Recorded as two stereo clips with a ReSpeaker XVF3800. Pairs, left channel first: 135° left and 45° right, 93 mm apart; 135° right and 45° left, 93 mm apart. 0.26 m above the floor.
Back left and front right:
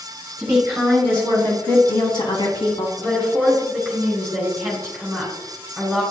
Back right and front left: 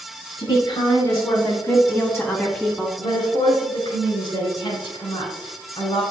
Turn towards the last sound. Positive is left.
turn(degrees=-145)